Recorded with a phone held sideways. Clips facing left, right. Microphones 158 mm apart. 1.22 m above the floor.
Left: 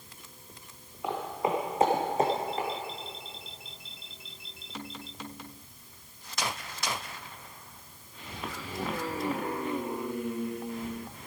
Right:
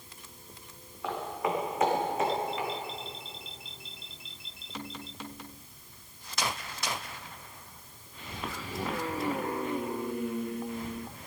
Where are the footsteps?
20° left (ahead or behind), 3.5 m; by 2.7 s 45° left (ahead or behind), 3.5 m.